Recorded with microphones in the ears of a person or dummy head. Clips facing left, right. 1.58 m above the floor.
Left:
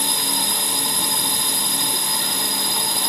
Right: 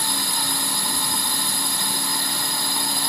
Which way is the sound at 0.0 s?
20° left (ahead or behind).